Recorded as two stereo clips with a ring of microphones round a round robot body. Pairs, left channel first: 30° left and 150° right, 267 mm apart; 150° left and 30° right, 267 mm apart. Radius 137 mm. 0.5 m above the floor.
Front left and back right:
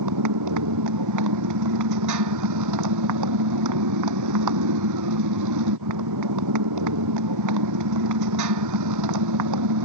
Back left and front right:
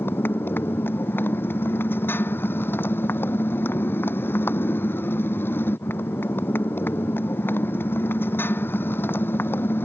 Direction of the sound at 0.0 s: 125° right.